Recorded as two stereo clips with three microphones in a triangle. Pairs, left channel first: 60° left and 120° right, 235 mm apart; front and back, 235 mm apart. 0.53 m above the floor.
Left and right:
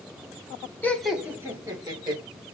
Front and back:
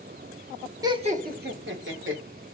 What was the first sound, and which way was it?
Laughter, 130° left.